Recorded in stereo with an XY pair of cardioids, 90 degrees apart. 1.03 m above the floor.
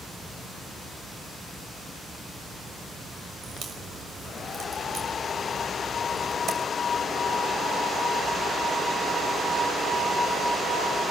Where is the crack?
65° right, 6 m.